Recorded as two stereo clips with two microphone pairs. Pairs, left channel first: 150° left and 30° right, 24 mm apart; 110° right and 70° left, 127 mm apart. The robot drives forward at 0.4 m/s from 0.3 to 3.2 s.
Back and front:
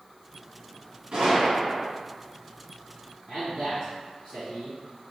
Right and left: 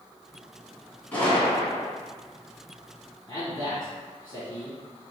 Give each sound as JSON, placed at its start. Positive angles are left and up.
{"t": 1.1, "sound": "a gunshot", "azimuth_deg": -40, "distance_m": 1.9}
{"t": 3.3, "sound": "a man speaking", "azimuth_deg": -135, "distance_m": 1.5}